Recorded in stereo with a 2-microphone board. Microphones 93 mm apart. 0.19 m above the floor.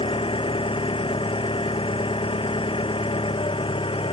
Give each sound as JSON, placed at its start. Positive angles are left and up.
{"t": 0.0, "sound": "an engine running", "side_deg": 75}